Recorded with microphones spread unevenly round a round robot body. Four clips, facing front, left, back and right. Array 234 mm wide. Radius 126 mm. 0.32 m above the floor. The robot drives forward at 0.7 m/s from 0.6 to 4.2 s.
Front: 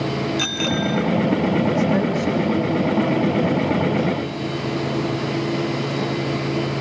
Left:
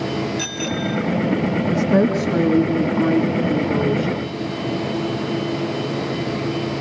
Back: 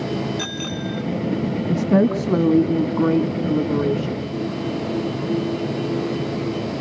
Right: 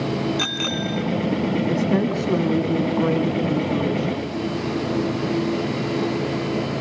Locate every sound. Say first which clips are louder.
0.4 s a bicycle bell: left 1 dB, front 5 dB; 60° right, 2.5 m; by 1.0 s 70° right, 2 m
1.7 s a woman speaking: left 7 dB, back 2 dB; 170° right, 3 m; by 4.3 s 175° right, 4.5 m